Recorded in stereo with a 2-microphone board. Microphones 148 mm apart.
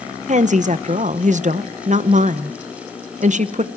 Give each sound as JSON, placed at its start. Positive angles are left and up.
{"t": 0.3, "sound": "a woman speaking", "side_deg": -60, "distance_m": 1.0}